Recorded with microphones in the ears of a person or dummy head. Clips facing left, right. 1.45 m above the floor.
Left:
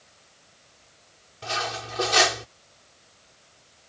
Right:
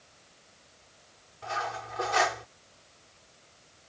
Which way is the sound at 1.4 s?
45° left (ahead or behind).